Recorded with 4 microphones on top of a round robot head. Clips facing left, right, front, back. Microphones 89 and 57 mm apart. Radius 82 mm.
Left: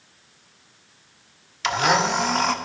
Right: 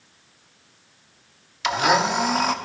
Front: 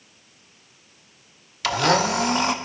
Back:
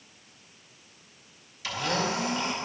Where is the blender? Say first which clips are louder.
Right 1 dB, front 9 dB; 5° right, 0.8 m.